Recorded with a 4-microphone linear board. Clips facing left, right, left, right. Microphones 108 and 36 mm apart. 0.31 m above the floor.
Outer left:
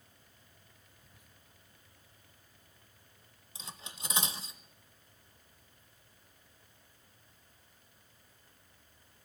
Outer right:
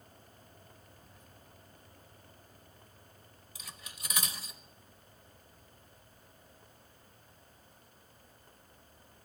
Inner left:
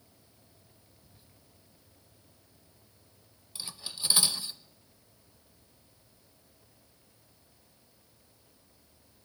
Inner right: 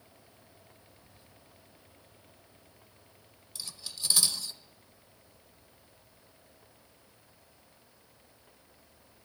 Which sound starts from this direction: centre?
Whispering, at 1.0 s.